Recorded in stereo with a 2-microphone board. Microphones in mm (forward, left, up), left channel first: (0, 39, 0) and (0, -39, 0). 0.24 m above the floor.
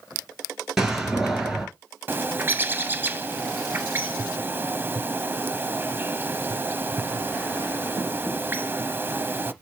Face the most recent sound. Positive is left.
turn(degrees=-30)  # may be behind; listen again after turning